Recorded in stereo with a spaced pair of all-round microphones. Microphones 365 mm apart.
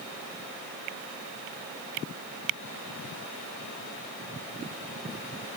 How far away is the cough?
No cough in this recording.